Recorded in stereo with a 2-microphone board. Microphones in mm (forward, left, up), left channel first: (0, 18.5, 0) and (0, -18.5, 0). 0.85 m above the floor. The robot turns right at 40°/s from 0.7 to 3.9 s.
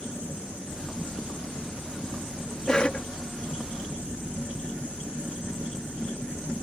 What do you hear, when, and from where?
2.7 s a cough: 20° left (ahead or behind); by 3.1 s 35° left (ahead or behind)